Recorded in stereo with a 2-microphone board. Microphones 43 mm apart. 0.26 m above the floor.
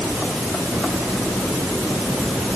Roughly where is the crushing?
No crushing in this recording.